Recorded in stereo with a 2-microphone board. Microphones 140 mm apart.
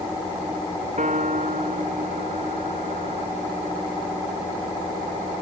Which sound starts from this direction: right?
A piano, at 1.0 s.